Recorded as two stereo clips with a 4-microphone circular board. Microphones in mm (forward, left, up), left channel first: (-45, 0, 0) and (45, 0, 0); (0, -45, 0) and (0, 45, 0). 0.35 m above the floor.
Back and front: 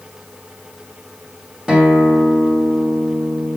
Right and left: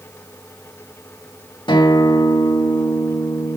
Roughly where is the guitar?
Right.